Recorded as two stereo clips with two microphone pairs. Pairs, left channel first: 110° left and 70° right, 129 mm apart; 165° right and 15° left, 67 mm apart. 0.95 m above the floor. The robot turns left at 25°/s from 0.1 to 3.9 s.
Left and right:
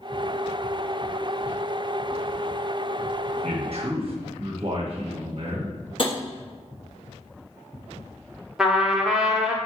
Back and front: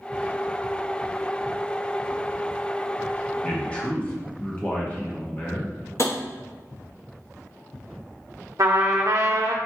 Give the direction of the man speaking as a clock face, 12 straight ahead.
3 o'clock.